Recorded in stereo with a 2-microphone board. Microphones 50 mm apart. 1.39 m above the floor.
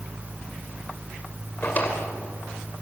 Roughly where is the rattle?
I don't hear a rattle.